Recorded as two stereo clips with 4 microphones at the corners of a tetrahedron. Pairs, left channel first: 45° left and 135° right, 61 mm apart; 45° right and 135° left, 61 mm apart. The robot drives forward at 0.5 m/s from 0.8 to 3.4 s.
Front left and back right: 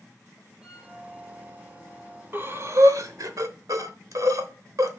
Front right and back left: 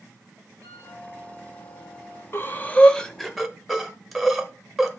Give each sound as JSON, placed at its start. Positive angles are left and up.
{"t": 0.6, "sound": "a flute", "azimuth_deg": 150, "distance_m": 5.0}
{"t": 2.3, "sound": "breathing", "azimuth_deg": -85, "distance_m": 0.6}